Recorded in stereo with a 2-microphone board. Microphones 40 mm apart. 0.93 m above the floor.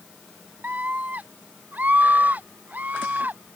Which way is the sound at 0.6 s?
50° right (ahead or behind).